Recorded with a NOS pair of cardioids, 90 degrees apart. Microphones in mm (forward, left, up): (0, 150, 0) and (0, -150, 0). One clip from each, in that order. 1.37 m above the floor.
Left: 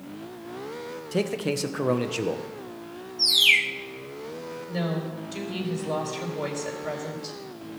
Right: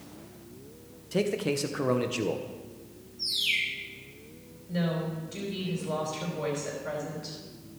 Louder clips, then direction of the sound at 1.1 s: Left 1 dB; 15° left.